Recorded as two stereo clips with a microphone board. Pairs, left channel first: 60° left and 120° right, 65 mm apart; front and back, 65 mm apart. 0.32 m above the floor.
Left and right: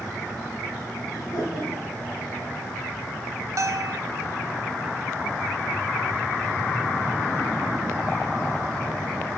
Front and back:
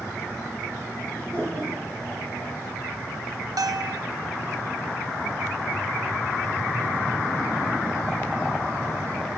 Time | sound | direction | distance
1.1 | laughter | 50° left | 6 m
3.6 | a bell | 160° right | 0.9 m